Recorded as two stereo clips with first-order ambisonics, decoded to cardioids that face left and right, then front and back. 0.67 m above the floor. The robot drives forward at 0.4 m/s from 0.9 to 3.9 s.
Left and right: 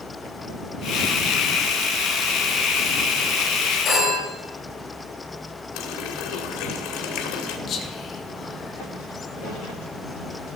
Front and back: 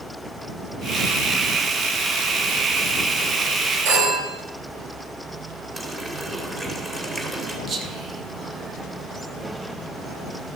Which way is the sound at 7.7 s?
130° left.